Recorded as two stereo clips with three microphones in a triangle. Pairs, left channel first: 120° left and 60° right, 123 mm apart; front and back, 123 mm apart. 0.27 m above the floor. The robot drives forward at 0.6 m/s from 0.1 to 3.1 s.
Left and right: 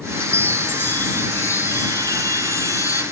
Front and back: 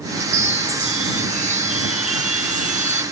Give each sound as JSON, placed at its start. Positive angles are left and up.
{"t": 0.2, "sound": "a chime", "azimuth_deg": -160, "distance_m": 0.6}